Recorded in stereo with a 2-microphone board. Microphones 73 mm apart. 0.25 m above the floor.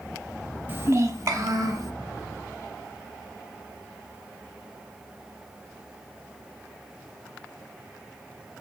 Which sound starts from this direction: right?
A child speaking, at 0.7 s.